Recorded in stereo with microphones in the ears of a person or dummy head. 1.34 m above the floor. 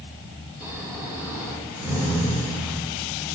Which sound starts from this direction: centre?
Snoring, at 0.6 s.